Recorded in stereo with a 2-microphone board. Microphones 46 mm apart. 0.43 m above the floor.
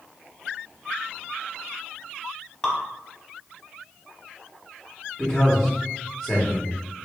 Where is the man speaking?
5° left (ahead or behind), 1.0 m.